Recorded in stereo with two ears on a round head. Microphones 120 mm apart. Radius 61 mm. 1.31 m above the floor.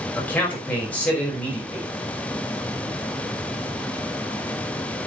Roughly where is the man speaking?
Centre.